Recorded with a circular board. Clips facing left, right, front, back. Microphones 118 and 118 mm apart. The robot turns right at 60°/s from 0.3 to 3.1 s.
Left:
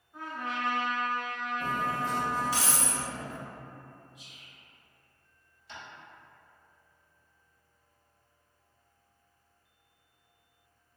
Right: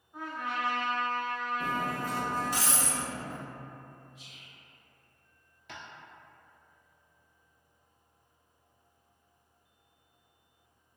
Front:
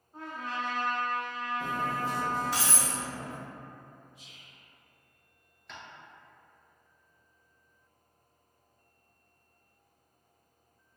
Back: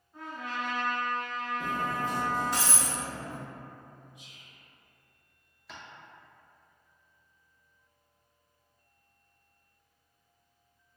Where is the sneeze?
I don't hear a sneeze.